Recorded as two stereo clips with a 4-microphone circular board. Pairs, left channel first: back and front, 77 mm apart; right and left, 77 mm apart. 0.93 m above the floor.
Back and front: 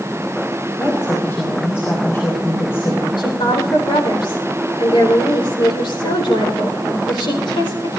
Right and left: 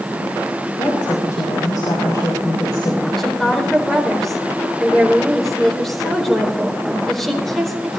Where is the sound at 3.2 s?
175° right, 4.5 m.